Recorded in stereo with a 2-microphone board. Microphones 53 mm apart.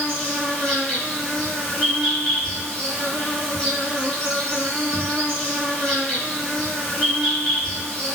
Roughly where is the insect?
Centre.